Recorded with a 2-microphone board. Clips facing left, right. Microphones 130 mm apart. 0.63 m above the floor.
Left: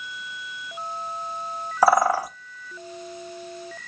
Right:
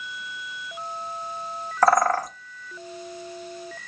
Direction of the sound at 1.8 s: 10° left (ahead or behind).